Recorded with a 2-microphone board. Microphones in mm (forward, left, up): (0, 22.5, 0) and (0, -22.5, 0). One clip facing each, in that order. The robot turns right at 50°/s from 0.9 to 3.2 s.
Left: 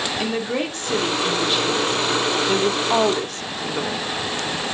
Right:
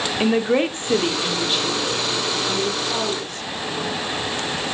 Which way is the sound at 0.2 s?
25° right (ahead or behind).